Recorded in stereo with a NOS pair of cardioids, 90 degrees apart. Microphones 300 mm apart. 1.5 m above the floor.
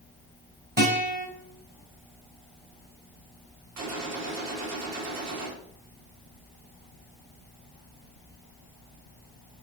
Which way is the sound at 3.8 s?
60° right.